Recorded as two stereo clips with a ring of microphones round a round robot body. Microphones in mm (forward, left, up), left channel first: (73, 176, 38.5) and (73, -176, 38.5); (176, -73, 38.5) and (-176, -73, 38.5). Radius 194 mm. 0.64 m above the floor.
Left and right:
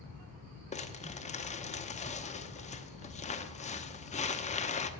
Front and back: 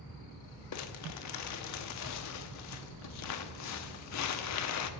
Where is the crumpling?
25° left, 0.9 m.